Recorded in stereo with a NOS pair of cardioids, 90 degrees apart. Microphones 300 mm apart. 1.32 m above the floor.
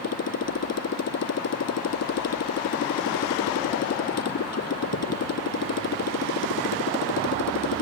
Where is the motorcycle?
50° left.